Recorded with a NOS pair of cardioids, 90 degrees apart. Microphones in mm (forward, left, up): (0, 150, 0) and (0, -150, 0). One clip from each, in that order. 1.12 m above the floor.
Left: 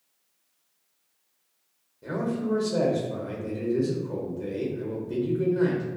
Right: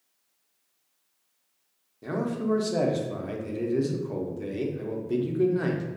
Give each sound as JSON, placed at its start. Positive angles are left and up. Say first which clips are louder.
{"t": 2.0, "sound": "a man speaking", "louder": "even", "azimuth_deg": -20, "distance_m": 0.6}